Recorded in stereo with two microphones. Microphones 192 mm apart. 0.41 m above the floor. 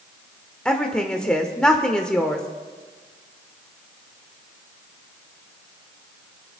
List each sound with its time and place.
0.7 s a woman speaking: 5° left (ahead or behind), 1.0 m